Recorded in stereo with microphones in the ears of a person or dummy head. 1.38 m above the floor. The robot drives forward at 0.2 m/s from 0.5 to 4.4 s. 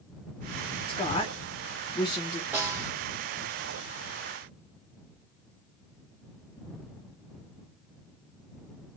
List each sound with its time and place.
0.9 s a woman speaking: 30° left (ahead or behind), 1.0 m; by 2.4 s 25° left (ahead or behind), 1.3 m
2.5 s a snare drum: 5° right (ahead or behind), 2 m